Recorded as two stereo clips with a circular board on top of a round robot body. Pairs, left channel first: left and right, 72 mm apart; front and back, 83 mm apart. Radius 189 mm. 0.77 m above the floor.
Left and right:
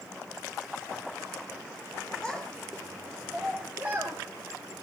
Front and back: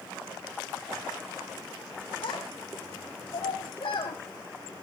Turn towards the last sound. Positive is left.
turn(degrees=-25)